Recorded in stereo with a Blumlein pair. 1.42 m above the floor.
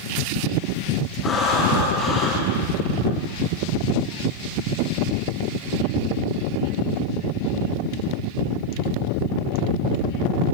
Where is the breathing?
15° left, 4 m.